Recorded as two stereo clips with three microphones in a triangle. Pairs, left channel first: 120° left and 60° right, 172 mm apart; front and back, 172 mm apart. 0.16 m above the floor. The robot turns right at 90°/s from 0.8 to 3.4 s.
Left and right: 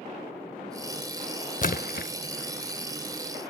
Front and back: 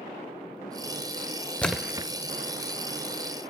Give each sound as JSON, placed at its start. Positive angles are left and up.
{"t": 1.6, "sound": "a splash", "azimuth_deg": 80, "distance_m": 0.7}